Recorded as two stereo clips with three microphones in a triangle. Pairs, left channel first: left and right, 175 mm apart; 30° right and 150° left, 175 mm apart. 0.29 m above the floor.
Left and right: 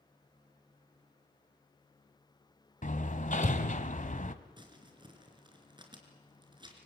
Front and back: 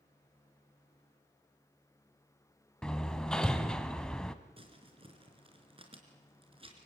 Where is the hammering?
55° left, 1.3 m.